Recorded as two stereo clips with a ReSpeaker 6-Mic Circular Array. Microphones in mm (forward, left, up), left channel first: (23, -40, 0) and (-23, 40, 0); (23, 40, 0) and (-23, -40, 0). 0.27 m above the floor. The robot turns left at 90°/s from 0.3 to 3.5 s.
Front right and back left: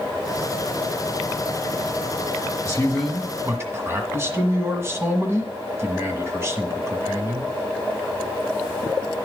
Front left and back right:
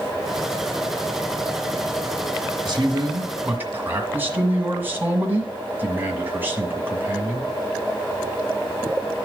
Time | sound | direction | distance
2.6 | a man speaking | 110° right | 1.6 m